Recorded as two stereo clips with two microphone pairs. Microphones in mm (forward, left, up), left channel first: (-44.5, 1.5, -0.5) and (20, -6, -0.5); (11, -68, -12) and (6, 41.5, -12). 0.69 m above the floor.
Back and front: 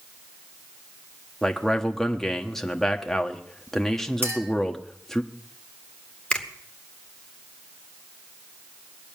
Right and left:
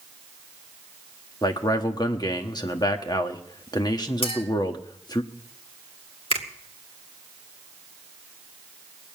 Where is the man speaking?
105° right, 1.2 m.